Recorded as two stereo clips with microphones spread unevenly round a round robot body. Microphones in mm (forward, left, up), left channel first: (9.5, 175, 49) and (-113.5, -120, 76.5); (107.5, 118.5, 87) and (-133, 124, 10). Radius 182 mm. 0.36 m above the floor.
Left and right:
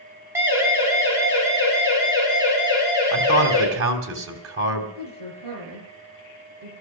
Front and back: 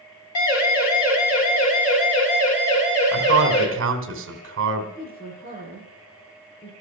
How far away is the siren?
About 3 m.